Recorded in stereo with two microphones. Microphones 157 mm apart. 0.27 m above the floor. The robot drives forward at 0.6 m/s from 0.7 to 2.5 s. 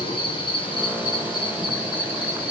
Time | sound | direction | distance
0.0 | an insect | 35° left (ahead or behind) | 4.5 m